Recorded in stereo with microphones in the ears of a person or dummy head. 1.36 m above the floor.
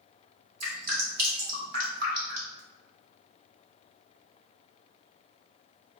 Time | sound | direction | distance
0.6 | dripping | 55° right (ahead or behind) | 3 m